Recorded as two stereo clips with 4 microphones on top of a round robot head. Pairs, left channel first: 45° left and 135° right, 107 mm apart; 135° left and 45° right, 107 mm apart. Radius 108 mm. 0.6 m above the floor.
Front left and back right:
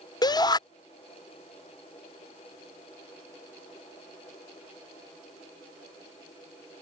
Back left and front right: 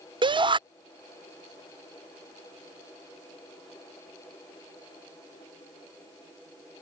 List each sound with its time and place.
0.2 s a shout: 5° right